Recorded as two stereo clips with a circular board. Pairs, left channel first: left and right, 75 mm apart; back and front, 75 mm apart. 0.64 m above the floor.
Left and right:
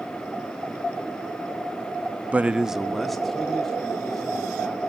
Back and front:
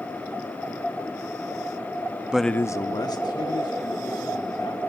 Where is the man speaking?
60° right, 0.5 m; by 4.8 s 175° left, 3.5 m.